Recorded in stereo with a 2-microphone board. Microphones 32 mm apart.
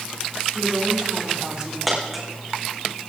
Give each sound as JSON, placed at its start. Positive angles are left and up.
{"t": 0.5, "sound": "a woman speaking", "side_deg": -25, "distance_m": 3.0}
{"t": 1.9, "sound": "a dropped coin", "side_deg": 0, "distance_m": 3.5}